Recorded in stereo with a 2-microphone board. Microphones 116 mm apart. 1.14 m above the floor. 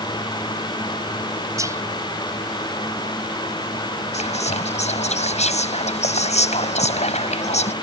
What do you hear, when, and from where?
1.6 s whispering: 25° right (ahead or behind)
4.1 s whispering: 80° left